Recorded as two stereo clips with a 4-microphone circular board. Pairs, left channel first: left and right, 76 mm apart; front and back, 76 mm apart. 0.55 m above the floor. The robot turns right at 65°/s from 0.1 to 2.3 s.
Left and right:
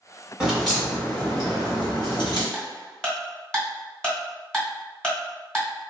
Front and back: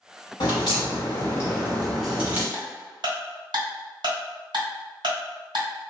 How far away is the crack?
About 1.8 m.